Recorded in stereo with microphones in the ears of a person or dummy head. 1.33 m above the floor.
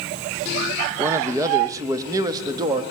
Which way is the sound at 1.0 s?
10° right (ahead or behind).